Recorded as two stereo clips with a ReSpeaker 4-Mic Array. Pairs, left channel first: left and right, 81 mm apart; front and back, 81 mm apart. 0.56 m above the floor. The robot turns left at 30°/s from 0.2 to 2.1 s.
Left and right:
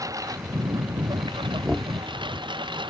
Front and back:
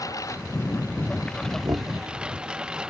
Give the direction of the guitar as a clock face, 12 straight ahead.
I don't hear a guitar.